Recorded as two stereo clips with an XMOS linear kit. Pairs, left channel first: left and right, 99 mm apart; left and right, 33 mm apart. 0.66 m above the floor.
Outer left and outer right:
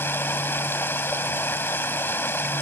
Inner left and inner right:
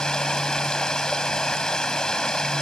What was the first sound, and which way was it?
Running water, 20° left (ahead or behind).